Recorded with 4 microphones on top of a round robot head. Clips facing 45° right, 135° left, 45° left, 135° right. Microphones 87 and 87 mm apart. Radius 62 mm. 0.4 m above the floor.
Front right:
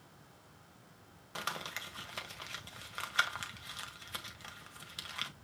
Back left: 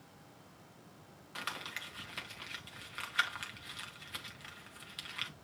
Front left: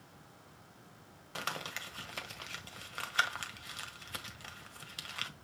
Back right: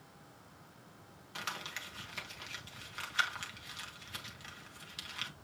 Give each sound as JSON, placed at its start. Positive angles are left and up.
{"t": 1.4, "sound": "crumpling", "azimuth_deg": 10, "distance_m": 1.9}